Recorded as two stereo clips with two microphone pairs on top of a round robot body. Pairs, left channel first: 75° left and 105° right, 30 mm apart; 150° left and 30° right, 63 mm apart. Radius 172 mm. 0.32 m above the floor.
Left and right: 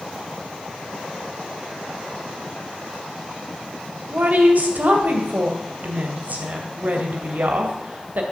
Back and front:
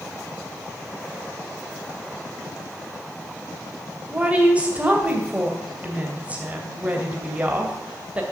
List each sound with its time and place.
4.1 s a woman speaking: 100° right, 2.5 m